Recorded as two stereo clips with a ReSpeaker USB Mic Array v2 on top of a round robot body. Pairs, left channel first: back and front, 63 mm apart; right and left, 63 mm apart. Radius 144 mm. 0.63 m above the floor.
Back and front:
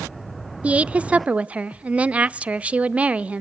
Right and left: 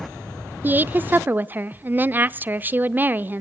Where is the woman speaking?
55° left, 0.6 m.